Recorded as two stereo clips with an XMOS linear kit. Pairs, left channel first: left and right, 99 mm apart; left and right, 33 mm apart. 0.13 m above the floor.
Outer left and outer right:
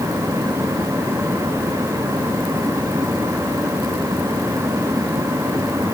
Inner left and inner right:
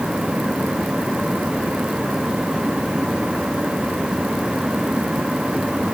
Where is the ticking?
I don't hear ticking.